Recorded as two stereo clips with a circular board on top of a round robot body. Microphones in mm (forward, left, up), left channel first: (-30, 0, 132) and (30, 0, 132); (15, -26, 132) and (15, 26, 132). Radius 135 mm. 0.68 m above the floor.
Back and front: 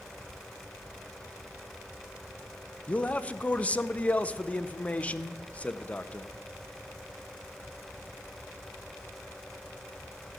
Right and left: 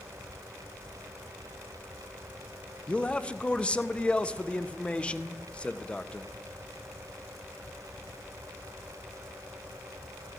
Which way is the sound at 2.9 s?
135° right.